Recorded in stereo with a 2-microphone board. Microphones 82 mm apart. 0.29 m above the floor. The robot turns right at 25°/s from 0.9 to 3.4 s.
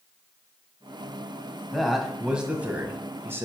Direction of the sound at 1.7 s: 175° left.